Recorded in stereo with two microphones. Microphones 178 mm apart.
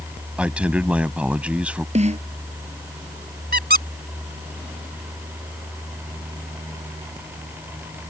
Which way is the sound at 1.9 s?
40° right (ahead or behind).